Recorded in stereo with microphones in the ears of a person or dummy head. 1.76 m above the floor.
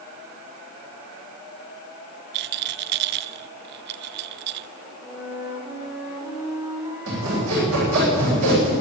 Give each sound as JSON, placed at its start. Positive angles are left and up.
{"t": 2.3, "sound": "a rattle", "side_deg": -60, "distance_m": 0.6}
{"t": 5.0, "sound": "a flute", "side_deg": -10, "distance_m": 4.0}
{"t": 7.1, "sound": "sawing", "side_deg": -75, "distance_m": 10.0}